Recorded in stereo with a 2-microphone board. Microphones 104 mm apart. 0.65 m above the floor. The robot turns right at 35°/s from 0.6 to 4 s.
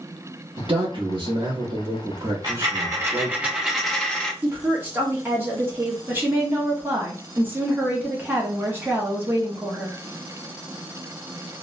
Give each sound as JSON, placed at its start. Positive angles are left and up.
{"t": 0.6, "sound": "a man speaking", "azimuth_deg": -105, "distance_m": 1.0}
{"t": 2.4, "sound": "a dropped coin", "azimuth_deg": -50, "distance_m": 0.9}
{"t": 4.4, "sound": "a woman speaking", "side_deg": -20, "distance_m": 1.2}
{"t": 6.1, "sound": "a woman speaking", "side_deg": -20, "distance_m": 1.0}